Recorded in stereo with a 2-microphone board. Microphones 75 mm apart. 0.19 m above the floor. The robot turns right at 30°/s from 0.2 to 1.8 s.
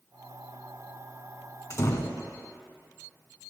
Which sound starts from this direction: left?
A door slam, at 1.7 s.